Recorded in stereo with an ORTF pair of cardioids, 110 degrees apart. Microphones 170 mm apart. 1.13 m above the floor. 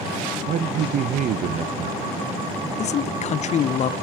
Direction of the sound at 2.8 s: 45° left.